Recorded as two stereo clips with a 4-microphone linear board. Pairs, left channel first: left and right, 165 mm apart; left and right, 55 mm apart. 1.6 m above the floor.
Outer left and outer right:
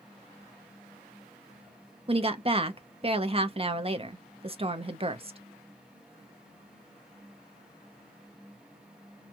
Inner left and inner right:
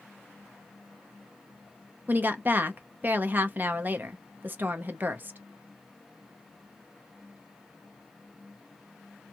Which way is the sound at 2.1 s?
35° right (ahead or behind).